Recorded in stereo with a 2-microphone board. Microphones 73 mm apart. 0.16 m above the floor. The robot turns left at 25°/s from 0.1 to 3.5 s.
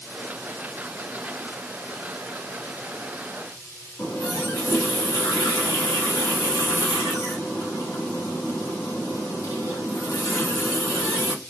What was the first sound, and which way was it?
A running tap, 45° left (ahead or behind).